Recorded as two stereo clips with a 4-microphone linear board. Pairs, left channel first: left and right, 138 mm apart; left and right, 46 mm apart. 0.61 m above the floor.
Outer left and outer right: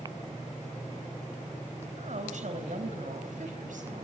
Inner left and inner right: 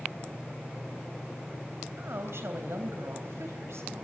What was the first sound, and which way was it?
A woman speaking, 60° right (ahead or behind).